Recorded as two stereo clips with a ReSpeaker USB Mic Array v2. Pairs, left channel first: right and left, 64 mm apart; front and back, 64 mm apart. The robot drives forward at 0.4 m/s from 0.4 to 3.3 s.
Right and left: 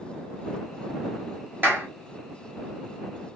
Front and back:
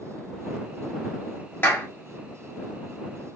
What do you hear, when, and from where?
1.6 s a clap: 45° left, 1.9 m; by 1.9 s 50° left, 1.9 m